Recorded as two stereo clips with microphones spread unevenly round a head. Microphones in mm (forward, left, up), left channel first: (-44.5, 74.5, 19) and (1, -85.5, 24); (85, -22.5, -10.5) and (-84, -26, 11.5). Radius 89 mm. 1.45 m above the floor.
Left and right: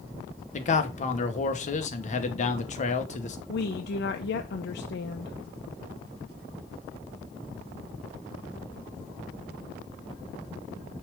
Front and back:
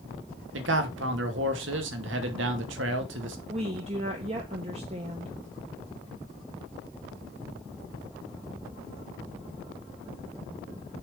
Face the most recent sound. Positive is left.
turn(degrees=130)